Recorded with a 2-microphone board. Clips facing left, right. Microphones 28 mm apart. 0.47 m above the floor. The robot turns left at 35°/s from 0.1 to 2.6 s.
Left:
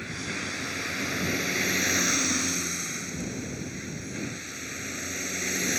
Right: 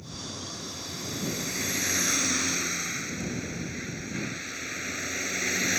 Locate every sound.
0.0 s a vehicle: 75° left; by 5.8 s 10° right